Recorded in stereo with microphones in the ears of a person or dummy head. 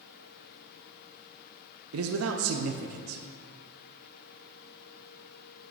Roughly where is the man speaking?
Right.